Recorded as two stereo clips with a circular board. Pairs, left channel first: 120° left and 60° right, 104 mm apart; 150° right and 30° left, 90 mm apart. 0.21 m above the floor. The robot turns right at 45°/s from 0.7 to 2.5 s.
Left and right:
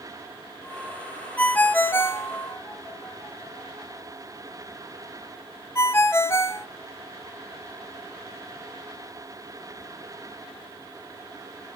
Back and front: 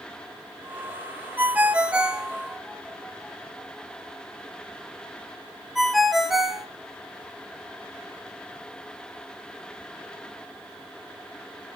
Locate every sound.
1.4 s a ringtone: 65° left, 0.6 m; by 6.7 s 115° left, 0.6 m